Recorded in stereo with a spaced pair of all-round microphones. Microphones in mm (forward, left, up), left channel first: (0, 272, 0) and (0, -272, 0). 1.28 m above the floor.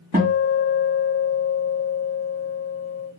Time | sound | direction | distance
0.1 | a guitar | 15° right (ahead or behind) | 1.5 m